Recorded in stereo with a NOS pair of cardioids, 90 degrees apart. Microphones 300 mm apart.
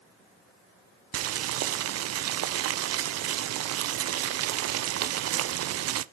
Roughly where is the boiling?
Ahead right.